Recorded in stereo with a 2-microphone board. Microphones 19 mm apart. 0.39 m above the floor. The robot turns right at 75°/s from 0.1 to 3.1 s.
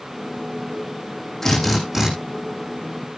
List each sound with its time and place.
1.4 s a drill: 155° left, 7 m; by 2.1 s 155° right, 7 m